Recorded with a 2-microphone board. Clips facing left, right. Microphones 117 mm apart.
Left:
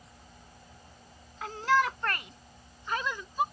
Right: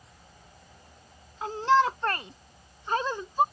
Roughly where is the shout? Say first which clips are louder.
Right 4 dB; right.